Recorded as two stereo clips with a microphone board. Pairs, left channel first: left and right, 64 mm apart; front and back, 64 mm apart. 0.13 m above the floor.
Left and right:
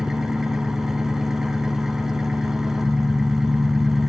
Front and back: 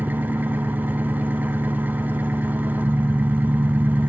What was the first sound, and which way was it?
An engine running, 165° right.